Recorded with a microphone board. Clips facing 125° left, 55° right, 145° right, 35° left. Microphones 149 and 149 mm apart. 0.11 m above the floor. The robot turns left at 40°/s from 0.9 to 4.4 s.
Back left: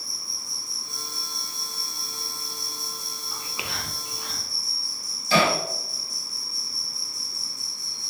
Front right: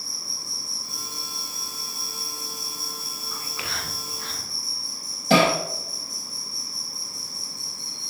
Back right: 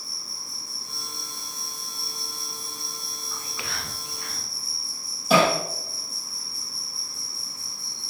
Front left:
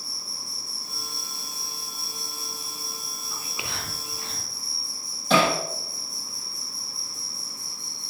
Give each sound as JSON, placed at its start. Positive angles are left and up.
{"t": 0.0, "sound": "an insect", "azimuth_deg": 55, "distance_m": 3.5}
{"t": 3.3, "sound": "whispering", "azimuth_deg": 95, "distance_m": 1.5}
{"t": 5.3, "sound": "hammering", "azimuth_deg": -65, "distance_m": 4.5}